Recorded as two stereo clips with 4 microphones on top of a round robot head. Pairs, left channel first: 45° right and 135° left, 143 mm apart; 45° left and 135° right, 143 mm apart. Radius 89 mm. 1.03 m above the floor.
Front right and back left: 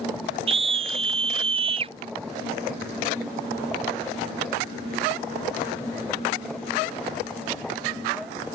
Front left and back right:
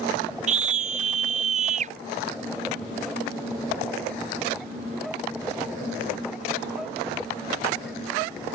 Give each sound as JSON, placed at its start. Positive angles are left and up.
{"t": 0.5, "sound": "a scream", "azimuth_deg": -175}